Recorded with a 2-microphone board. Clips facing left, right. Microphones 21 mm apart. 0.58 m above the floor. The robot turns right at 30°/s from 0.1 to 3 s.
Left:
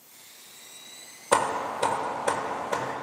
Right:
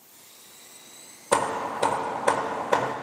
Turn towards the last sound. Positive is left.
turn(degrees=-140)